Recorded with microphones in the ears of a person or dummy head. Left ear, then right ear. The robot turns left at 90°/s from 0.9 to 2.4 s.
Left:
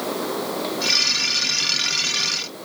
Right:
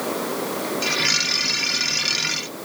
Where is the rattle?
No rattle in this recording.